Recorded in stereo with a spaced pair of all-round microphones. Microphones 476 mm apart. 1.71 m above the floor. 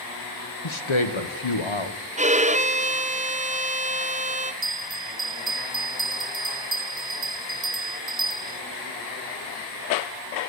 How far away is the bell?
About 0.8 m.